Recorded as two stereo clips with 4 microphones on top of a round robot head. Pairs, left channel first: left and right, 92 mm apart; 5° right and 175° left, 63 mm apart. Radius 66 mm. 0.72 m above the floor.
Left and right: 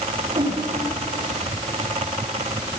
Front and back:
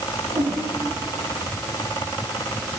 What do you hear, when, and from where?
0.3 s a whoosh: 130° right, 9 m